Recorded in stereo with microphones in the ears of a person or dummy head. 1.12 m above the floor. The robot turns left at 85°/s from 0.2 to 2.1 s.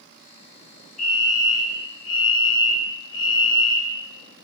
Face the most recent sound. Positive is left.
turn(degrees=80)